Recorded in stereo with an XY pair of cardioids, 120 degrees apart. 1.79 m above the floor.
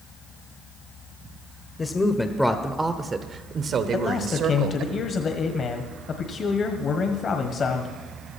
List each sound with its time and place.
1.8 s a woman speaking: 25° left, 1.0 m; by 4.9 s 70° right, 1.8 m
3.9 s a man speaking: 40° left, 1.3 m